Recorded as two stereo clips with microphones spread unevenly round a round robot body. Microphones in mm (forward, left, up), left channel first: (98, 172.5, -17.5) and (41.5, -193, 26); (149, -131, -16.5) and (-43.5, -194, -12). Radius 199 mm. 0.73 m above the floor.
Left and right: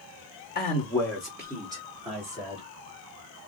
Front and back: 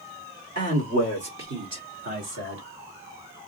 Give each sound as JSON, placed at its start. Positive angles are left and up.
{"t": 0.6, "sound": "a man speaking", "azimuth_deg": 145, "distance_m": 0.7}